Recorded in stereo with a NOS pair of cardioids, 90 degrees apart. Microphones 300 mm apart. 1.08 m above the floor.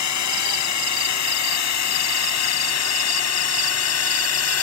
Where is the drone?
65° left; by 4.6 s 55° left.